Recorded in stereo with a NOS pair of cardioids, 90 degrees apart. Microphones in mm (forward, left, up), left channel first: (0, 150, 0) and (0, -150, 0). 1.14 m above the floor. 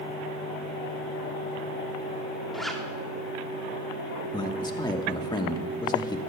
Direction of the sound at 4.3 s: 15° left.